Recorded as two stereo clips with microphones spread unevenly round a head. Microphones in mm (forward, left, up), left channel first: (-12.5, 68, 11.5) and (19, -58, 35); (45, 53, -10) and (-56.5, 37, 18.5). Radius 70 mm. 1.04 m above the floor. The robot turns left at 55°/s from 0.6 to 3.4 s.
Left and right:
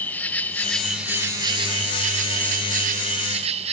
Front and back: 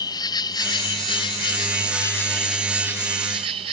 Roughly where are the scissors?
I don't hear scissors.